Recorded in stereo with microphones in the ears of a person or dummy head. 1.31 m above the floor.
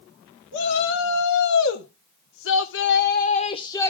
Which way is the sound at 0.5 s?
65° left (ahead or behind).